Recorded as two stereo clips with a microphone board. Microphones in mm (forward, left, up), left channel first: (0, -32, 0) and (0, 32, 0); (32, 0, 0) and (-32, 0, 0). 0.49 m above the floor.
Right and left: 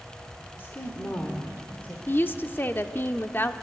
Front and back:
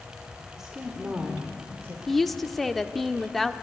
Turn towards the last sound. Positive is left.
turn(degrees=-85)